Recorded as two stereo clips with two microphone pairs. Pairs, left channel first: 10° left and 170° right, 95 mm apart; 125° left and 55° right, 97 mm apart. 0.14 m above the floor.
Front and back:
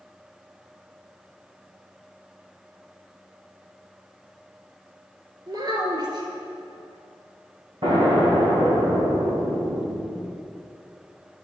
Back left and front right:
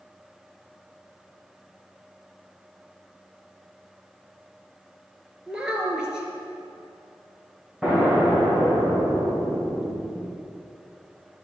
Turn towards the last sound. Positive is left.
turn(degrees=-140)